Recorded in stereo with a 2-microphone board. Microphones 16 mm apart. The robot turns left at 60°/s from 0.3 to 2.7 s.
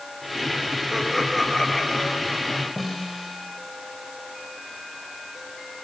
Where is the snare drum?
5° left (ahead or behind), 8 m.